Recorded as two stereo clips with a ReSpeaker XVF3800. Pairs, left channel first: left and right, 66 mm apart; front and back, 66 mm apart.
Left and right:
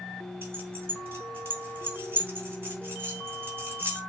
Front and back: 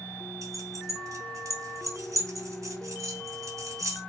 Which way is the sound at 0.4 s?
145° right.